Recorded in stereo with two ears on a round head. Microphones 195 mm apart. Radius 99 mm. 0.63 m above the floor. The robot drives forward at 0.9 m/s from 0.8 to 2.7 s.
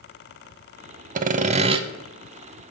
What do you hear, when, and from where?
1.1 s sawing: 35° right (ahead or behind), 0.5 m; by 1.8 s 25° right (ahead or behind), 0.8 m